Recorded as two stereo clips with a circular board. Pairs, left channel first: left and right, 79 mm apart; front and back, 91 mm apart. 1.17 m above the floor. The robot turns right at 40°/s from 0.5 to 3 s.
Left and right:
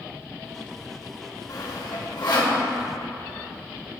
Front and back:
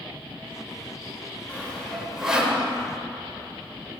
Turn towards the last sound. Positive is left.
turn(degrees=125)